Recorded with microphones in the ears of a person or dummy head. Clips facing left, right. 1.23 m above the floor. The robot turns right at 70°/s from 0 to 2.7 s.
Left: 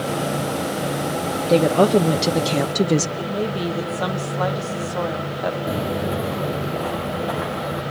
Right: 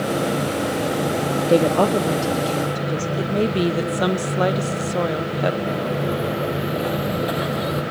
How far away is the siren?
I don't hear a siren.